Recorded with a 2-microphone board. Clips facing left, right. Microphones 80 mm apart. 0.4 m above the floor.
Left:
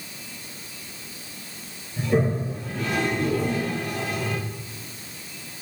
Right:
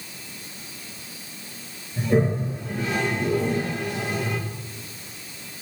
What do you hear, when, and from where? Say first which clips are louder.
2.0 s a toilet flushing: right 1 dB; 25° right (ahead or behind), 9.5 m